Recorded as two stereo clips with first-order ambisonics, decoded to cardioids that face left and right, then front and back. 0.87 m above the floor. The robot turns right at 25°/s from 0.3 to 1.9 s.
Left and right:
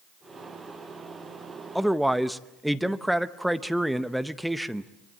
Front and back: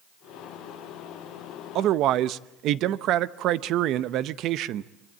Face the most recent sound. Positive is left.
turn(degrees=180)